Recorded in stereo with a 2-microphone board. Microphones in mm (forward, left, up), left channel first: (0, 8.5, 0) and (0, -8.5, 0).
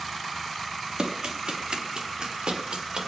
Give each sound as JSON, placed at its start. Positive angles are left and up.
{"t": 1.0, "sound": "running footsteps", "side_deg": -55, "distance_m": 3.0}